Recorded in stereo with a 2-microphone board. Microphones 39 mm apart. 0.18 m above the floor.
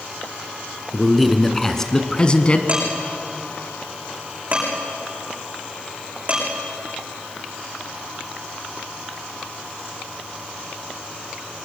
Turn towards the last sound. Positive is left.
turn(degrees=-40)  # may be behind; listen again after turning